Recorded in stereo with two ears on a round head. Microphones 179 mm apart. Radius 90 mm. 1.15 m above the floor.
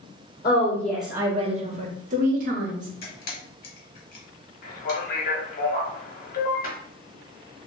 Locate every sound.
0.4 s a woman speaking: 20° left (ahead or behind), 0.8 m; by 2.9 s 40° right (ahead or behind), 1.5 m
3.0 s a camera shutter: 50° left (ahead or behind), 1.4 m
4.6 s a man speaking: 45° left (ahead or behind), 1.2 m